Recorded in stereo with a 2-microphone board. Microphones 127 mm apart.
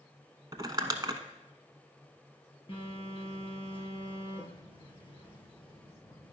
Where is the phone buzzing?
40° left (ahead or behind), 3 m.